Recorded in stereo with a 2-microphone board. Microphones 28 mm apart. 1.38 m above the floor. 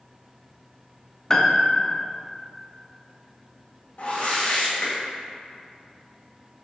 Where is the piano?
20° left (ahead or behind), 0.6 m.